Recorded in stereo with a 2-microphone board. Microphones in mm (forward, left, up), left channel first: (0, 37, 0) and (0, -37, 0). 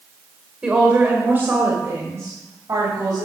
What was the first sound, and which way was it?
A woman speaking, 15° right (ahead or behind).